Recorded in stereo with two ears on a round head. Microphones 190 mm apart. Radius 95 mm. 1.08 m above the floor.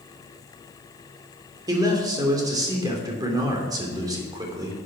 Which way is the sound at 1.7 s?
20° right (ahead or behind).